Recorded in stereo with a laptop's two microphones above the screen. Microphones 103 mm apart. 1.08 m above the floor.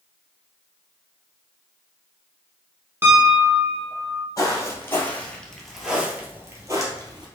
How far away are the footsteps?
About 1.6 m.